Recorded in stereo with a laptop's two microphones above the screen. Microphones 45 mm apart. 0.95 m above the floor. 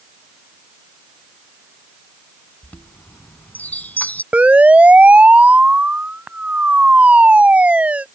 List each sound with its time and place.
2.6 s a chime: 40° left (ahead or behind)
4.3 s a siren: 30° right (ahead or behind)